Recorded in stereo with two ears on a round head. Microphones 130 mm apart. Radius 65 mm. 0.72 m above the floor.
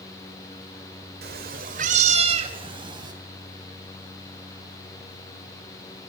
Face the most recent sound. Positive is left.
turn(degrees=-30)  # may be behind; listen again after turning